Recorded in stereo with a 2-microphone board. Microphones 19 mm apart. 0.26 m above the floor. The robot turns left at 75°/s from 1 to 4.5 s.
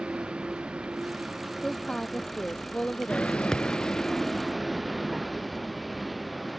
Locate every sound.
0.0 s a vehicle: 100° right; by 6.6 s 5° right
1.6 s a woman speaking: 150° left; by 3.4 s 20° left
3.5 s a thud: 35° left (ahead or behind); by 3.9 s 60° left (ahead or behind)